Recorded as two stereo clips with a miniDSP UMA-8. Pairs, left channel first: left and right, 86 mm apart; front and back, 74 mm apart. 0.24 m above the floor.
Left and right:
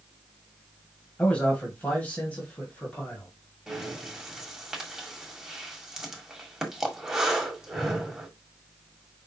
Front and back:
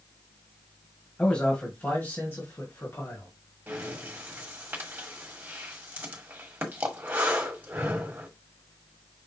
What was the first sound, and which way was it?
A man speaking, 50° left.